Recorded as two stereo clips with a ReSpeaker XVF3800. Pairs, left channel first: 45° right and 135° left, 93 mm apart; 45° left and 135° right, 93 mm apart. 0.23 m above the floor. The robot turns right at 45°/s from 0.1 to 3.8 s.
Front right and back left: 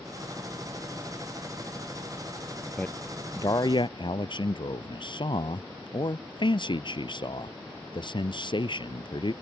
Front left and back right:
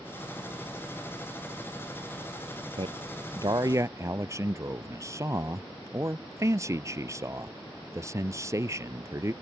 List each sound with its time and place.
2.8 s a man speaking: 125° right; by 9.3 s 80° right